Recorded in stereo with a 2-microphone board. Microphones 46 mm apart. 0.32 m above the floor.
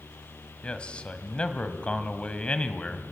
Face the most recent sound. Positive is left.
turn(degrees=20)  # may be behind; listen again after turning